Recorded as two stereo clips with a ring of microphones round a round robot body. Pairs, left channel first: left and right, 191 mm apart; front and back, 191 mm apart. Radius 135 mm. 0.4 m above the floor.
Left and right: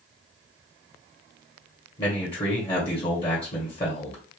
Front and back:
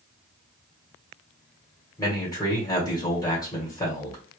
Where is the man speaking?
55° left, 1.6 m.